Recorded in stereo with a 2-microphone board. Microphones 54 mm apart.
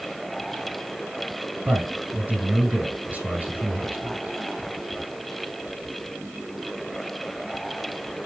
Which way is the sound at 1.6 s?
30° right (ahead or behind).